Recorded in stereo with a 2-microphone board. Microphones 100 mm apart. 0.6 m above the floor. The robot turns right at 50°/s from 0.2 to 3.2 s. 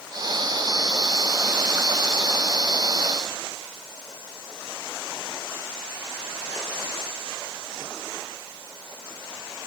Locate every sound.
Only background noise.